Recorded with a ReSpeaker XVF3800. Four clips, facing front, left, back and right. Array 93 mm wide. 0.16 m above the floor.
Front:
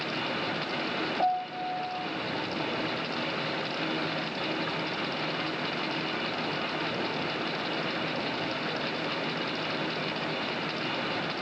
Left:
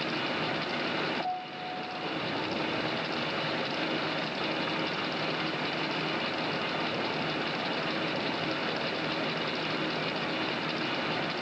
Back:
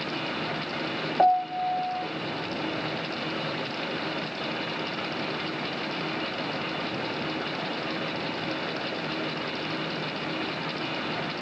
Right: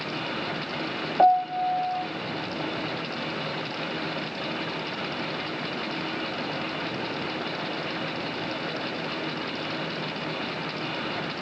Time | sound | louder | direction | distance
1.2 | a piano | right 14 dB, back 9 dB | 125° right | 2 m